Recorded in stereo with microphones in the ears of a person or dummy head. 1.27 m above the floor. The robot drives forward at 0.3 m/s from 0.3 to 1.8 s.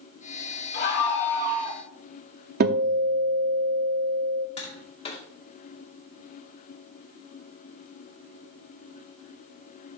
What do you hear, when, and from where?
0.7 s a scream: 65° left (ahead or behind), 4 m; by 1.8 s 60° left (ahead or behind), 4 m
2.6 s a guitar: 45° right (ahead or behind), 0.6 m
4.6 s tapping: 35° left (ahead or behind), 1.8 m